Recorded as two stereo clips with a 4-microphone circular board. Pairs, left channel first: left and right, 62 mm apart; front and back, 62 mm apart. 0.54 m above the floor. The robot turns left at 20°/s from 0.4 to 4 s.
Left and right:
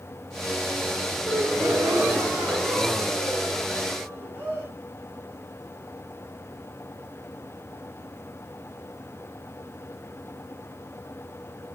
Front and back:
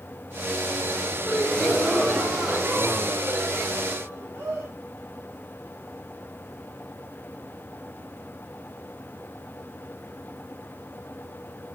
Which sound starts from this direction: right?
A gasp, at 1.2 s.